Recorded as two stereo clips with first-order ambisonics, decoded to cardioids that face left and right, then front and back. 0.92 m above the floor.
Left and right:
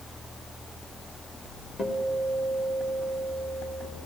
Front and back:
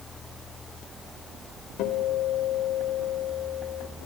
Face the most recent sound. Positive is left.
turn(degrees=25)